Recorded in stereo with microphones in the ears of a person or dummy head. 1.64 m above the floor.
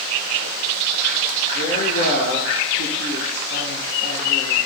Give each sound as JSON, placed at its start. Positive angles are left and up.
{"t": 1.5, "sound": "a woman speaking", "side_deg": 60, "distance_m": 1.5}